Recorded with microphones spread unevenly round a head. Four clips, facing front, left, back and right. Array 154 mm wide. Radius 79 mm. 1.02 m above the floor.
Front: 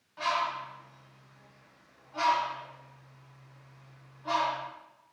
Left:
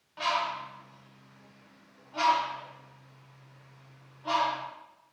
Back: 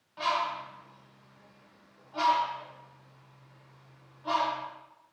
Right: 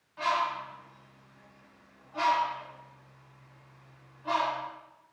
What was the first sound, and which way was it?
A bird, 125° left.